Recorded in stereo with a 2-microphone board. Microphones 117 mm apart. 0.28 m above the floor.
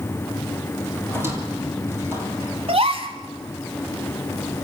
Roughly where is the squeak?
Right.